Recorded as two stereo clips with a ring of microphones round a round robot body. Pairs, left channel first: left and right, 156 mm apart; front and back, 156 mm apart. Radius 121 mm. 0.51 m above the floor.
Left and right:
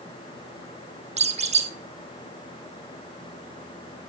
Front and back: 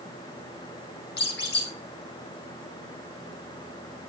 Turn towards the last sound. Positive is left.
turn(degrees=-45)